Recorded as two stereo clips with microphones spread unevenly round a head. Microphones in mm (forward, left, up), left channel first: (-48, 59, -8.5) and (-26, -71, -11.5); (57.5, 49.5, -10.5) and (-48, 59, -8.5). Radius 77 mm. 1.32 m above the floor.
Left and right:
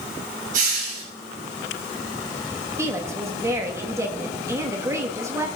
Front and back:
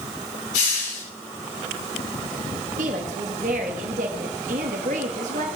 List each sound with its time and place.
0.5 s a hiss: 40° right, 7.5 m
2.8 s a woman speaking: 150° right, 1.7 m